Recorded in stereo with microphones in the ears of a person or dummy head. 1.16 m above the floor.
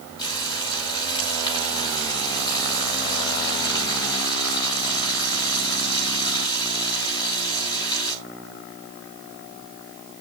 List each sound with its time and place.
0.2 s frying: 25° left (ahead or behind), 5.5 m